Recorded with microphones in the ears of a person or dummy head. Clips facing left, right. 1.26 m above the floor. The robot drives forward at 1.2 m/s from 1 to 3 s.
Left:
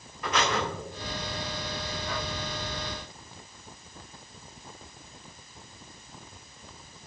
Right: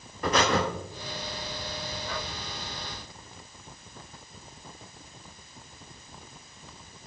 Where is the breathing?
30° right (ahead or behind), 0.8 m.